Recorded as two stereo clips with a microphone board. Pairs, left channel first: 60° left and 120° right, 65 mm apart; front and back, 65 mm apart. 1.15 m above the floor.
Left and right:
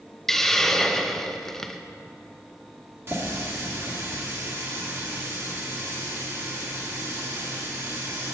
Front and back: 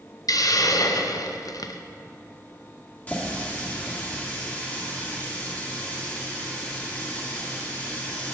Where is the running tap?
70° right, 1.7 m.